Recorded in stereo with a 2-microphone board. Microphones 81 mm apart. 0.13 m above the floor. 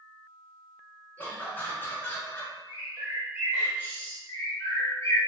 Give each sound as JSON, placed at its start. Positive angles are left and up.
{"t": 1.2, "sound": "laughter", "side_deg": 20, "distance_m": 1.5}
{"t": 2.7, "sound": "a bird", "side_deg": -25, "distance_m": 1.6}
{"t": 4.3, "sound": "a bird", "side_deg": 35, "distance_m": 1.6}